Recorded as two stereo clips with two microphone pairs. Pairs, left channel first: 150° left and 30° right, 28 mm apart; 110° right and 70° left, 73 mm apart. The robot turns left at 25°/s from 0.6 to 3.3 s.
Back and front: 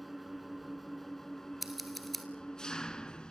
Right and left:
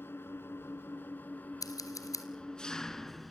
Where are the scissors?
115° right, 2 m; by 2.2 s 130° right, 2 m.